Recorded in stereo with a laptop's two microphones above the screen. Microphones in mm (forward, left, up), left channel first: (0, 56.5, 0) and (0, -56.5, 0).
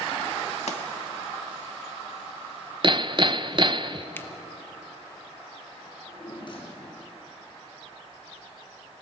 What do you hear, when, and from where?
0.7 s a pop: 70° left (ahead or behind), 2.0 m
2.8 s hammering: 45° right (ahead or behind), 0.6 m
4.2 s a finger snap: 20° left (ahead or behind), 1.1 m
5.9 s a drawer: 45° left (ahead or behind), 6.5 m